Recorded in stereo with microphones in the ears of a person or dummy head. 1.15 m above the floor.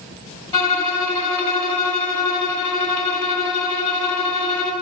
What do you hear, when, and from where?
0.5 s a violin: 30° left (ahead or behind), 2.0 m